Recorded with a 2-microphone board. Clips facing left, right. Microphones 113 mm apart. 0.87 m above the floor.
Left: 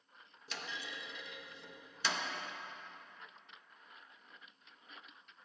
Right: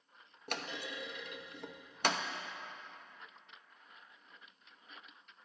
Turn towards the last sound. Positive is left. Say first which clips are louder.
# right 4 dB
turn(degrees=-55)  # may be behind; listen again after turning